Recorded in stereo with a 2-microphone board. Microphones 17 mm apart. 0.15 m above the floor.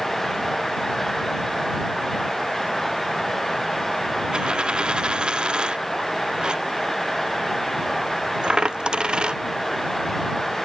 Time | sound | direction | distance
4.3 | a dropped coin | 80° right | ?